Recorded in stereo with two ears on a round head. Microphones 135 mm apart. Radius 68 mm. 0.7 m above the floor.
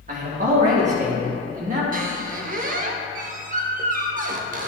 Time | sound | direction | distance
0.1 | a man speaking | 50° right (ahead or behind) | 1.7 m
1.9 | a squeak | 55° right (ahead or behind) | 0.7 m